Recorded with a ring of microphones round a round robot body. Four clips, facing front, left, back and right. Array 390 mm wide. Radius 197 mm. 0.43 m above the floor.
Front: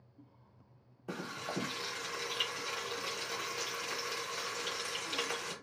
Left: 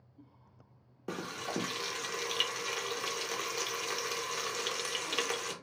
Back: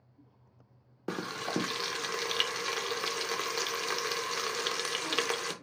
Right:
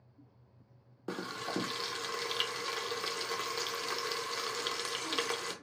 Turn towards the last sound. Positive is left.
turn(degrees=-175)